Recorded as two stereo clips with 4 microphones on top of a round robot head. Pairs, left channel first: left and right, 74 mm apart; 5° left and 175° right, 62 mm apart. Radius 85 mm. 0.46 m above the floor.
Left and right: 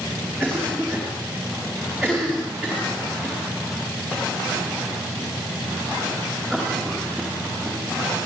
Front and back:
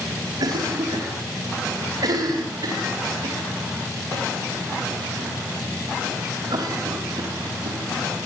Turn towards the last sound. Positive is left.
turn(degrees=175)